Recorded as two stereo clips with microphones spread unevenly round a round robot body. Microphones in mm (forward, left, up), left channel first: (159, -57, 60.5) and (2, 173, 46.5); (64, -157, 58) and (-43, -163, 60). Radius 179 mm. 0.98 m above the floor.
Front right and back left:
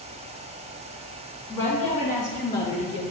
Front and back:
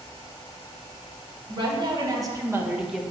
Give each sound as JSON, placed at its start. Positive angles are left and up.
{"t": 1.5, "sound": "a woman speaking", "azimuth_deg": -135, "distance_m": 2.0}